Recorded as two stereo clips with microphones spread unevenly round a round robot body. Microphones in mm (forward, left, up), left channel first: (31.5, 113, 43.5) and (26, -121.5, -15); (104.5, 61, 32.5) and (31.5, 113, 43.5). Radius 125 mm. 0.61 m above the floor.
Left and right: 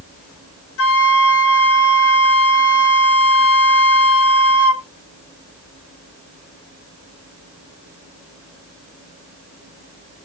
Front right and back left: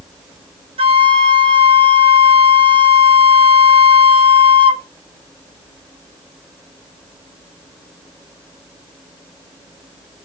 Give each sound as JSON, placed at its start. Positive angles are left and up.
{"t": 0.8, "sound": "a flute", "azimuth_deg": 125, "distance_m": 0.6}